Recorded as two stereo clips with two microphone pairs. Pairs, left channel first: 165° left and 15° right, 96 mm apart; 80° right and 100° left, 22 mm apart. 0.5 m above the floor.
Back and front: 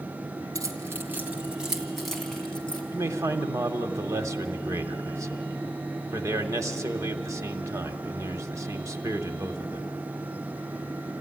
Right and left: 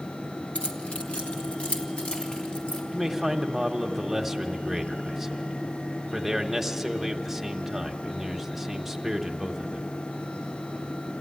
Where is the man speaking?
25° left, 1.0 m.